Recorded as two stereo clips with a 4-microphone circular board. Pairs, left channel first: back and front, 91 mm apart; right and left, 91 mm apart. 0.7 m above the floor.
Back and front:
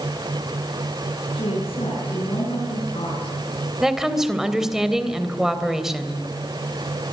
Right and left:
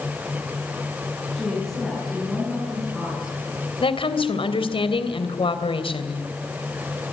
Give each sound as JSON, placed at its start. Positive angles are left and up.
{"t": 1.3, "sound": "a woman speaking", "azimuth_deg": 180, "distance_m": 8.0}
{"t": 3.8, "sound": "a woman speaking", "azimuth_deg": -85, "distance_m": 3.0}